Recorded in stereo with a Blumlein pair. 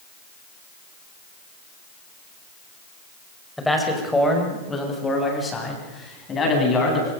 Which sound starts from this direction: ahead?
A man speaking, at 3.6 s.